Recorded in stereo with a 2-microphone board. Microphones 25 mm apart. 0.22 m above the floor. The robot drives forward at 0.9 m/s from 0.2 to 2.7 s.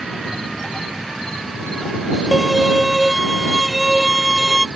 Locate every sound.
2.3 s a violin: 5° right (ahead or behind)